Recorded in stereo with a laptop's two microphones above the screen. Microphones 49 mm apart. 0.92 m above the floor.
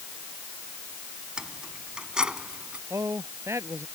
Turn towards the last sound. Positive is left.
turn(degrees=-80)